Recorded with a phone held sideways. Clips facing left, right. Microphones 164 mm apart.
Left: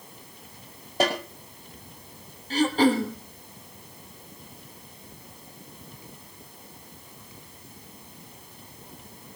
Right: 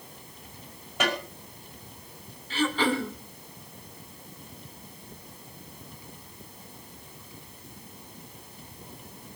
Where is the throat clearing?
40° left (ahead or behind), 2 m.